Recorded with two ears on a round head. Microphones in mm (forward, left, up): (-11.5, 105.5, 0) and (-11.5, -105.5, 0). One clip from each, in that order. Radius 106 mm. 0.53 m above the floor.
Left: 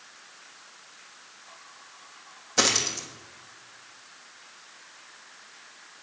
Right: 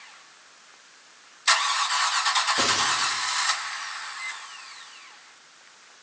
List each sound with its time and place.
2.6 s a dropped coin: 55° left (ahead or behind), 1.5 m